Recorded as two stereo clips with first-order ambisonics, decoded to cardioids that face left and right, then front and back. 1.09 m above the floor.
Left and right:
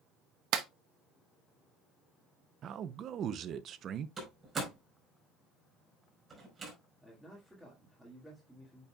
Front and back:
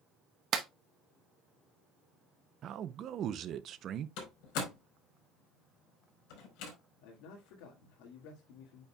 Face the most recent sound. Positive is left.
turn(degrees=-5)